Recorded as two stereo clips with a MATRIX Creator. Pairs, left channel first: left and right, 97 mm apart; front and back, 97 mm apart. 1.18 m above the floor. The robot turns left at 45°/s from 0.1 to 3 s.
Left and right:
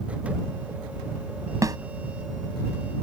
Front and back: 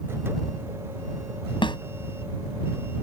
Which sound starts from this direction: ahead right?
A snare drum, at 1.6 s.